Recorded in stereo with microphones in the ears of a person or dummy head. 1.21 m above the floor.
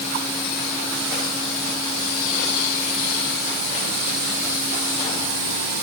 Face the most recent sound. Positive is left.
No sound to turn to.